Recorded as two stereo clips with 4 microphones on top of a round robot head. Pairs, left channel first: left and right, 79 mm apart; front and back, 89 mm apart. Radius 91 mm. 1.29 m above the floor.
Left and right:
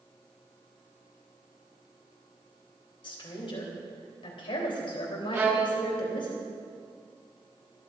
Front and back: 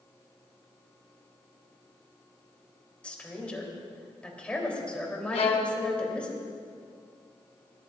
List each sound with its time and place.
3.0 s a woman speaking: 75° left, 3.5 m
5.3 s a violin: 25° right, 1.2 m